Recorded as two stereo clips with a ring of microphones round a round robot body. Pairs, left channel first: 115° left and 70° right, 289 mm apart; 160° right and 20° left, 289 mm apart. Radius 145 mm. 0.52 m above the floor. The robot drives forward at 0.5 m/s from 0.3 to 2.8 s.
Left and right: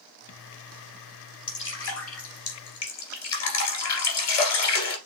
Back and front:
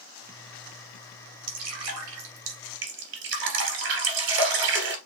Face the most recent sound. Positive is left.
turn(degrees=75)